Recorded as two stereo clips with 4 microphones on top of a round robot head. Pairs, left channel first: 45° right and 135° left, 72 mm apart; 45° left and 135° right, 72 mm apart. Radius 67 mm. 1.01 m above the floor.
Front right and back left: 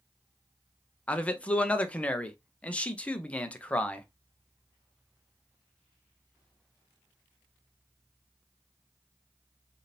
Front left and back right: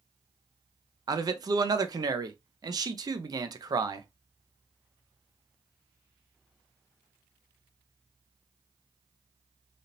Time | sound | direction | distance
1.1 | a man speaking | 115° right | 0.7 m